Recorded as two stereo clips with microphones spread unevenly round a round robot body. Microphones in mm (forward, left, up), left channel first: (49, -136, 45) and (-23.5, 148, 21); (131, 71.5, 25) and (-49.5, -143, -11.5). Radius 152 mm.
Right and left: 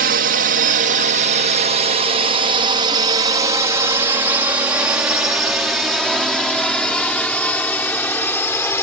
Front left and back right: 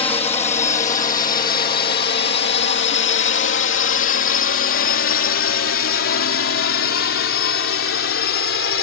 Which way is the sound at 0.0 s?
115° left.